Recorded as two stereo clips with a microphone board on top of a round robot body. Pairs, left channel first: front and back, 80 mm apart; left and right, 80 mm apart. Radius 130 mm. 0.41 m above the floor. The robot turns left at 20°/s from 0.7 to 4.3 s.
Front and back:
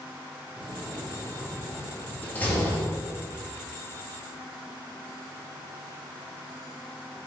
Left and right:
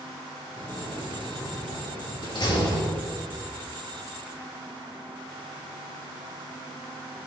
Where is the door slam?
100° left, 3 m; by 2.8 s 60° left, 3 m.